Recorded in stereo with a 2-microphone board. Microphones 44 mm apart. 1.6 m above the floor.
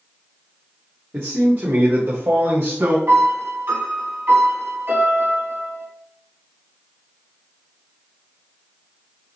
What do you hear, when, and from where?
1.1 s a man speaking: 40° right (ahead or behind), 2 m; by 3.0 s 70° right (ahead or behind), 2 m
3.1 s a piano: 55° right (ahead or behind), 3 m